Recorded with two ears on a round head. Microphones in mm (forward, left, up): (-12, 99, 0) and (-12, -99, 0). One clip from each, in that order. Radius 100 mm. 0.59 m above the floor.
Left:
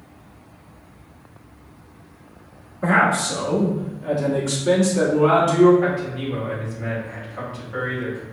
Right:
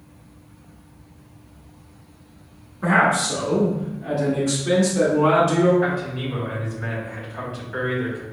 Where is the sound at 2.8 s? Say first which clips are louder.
Even; 5° right (ahead or behind), 1.3 m; by 5.7 s 10° left (ahead or behind), 1.8 m.